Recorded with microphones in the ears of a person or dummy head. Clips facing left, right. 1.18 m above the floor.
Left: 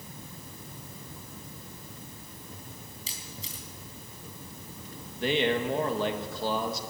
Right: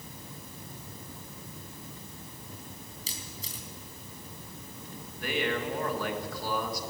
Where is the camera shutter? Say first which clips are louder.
Even; 35° right (ahead or behind), 3 m.